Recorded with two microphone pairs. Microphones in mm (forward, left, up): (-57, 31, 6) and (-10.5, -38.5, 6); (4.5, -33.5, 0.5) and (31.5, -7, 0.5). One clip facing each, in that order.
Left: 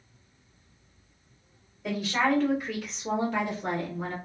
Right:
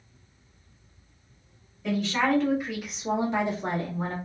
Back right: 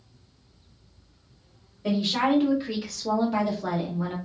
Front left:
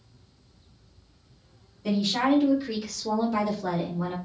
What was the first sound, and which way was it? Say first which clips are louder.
A woman speaking: right 1 dB, even; 165° right.